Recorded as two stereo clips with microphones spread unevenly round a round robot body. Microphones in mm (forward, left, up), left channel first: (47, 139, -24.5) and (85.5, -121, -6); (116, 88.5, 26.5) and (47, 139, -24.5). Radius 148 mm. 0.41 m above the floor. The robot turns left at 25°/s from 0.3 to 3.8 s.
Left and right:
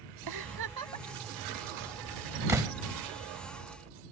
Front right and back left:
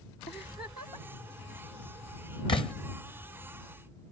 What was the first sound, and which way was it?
A giggle, 105° right.